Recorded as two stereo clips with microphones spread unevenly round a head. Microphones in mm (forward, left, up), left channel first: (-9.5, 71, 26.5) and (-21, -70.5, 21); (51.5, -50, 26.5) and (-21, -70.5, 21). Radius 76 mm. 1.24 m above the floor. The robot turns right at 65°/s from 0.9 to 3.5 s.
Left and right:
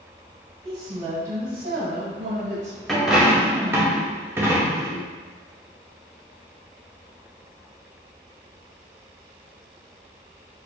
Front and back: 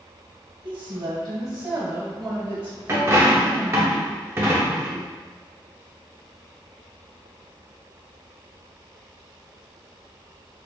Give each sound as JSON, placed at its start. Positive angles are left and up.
{"t": 0.6, "sound": "a woman speaking", "azimuth_deg": -160, "distance_m": 1.4}
{"t": 2.9, "sound": "a dropped coin", "azimuth_deg": 165, "distance_m": 0.6}